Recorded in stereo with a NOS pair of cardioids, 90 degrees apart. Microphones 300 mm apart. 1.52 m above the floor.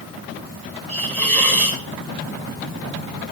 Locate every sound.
0.9 s a hiss: 30° right, 2 m